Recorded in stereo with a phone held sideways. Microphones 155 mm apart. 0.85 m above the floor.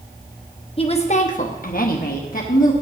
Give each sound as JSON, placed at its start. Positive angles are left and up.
{"t": 0.8, "sound": "a woman speaking", "side_deg": 35, "distance_m": 1.1}